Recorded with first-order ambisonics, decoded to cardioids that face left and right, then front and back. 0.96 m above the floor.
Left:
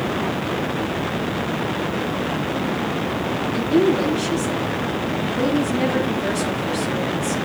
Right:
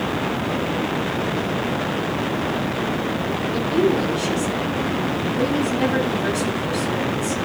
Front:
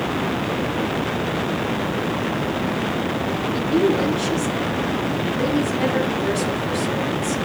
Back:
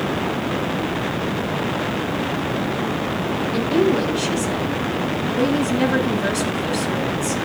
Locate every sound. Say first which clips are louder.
3.5 s a woman speaking: left 2 dB, back 1 dB; 170° right, 8.5 m